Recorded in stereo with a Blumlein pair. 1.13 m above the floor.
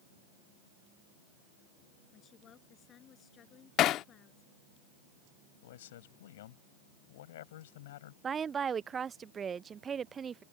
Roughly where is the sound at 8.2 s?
Ahead.